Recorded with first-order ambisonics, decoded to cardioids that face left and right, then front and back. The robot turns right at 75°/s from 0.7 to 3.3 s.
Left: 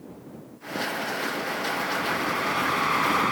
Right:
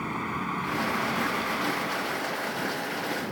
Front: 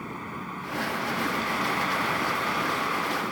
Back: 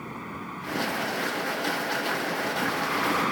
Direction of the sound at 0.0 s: 85° right.